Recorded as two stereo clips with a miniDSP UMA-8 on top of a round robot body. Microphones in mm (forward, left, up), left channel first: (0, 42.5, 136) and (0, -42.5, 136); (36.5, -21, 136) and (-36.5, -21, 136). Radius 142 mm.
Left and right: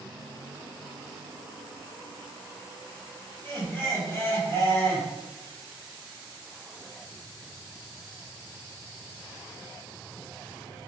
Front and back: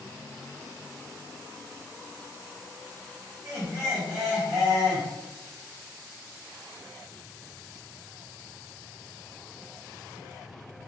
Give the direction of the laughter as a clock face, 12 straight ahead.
7 o'clock.